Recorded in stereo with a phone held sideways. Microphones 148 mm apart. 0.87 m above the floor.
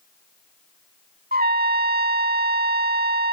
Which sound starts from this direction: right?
A trumpet, at 1.3 s.